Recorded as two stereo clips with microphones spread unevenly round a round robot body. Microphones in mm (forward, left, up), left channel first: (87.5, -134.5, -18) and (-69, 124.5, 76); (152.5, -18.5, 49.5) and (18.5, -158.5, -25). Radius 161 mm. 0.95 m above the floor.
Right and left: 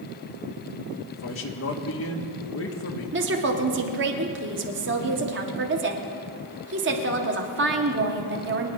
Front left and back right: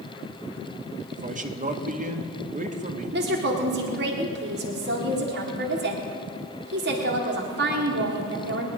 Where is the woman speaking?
Straight behind, 1.6 m.